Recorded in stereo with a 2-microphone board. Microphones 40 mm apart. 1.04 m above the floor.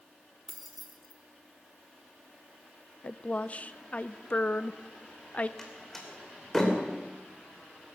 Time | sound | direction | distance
0.5 | keys jangling | 5° left (ahead or behind) | 1.9 m
3.0 | a woman speaking | 35° left (ahead or behind) | 0.5 m
5.6 | a door slam | 10° left (ahead or behind) | 2.5 m